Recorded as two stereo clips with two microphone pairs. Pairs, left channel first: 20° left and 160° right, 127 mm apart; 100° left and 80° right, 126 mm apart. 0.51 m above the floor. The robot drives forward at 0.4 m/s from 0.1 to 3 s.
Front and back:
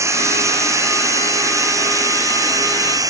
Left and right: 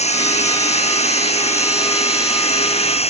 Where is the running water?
130° left; by 3.1 s 135° left.